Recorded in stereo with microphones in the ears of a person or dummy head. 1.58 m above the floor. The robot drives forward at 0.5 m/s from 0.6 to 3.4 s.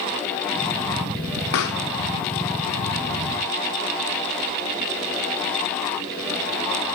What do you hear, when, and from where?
1.5 s a pop: 60° left (ahead or behind), 0.9 m; by 6.4 s 30° left (ahead or behind), 1.5 m